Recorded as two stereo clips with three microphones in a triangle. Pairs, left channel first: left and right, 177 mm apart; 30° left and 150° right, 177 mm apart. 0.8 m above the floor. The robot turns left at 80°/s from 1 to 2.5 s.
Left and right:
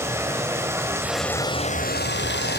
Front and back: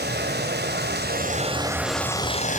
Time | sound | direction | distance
0.0 | running water | 165° right | 3 m